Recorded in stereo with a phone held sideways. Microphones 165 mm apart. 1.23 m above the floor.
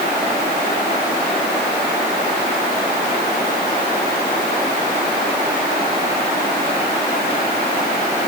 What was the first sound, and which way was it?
Only background noise.